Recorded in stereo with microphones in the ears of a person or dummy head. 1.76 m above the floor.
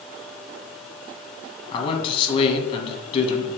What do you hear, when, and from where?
1.7 s a man speaking: 35° left (ahead or behind), 2 m